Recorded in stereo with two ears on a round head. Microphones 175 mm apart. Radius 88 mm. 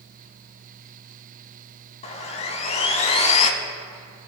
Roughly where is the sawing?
Left.